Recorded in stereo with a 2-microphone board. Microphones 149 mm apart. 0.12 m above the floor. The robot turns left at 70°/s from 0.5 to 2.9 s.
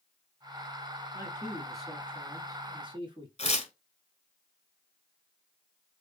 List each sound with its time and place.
1.1 s a man speaking: 45° left, 1.3 m; by 3.3 s 80° right, 1.3 m
3.4 s tearing paper: 45° left (ahead or behind), 1.0 m